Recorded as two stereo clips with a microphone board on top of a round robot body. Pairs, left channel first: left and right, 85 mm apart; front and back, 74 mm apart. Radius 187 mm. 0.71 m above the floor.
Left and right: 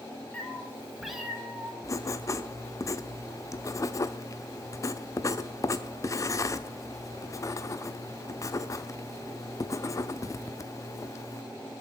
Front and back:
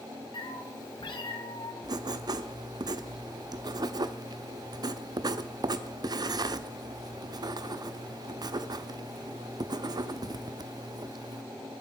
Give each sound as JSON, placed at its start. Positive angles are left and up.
{"t": 0.3, "sound": "a cat meowing", "azimuth_deg": 15, "distance_m": 3.0}
{"t": 1.8, "sound": "writing", "azimuth_deg": 145, "distance_m": 0.8}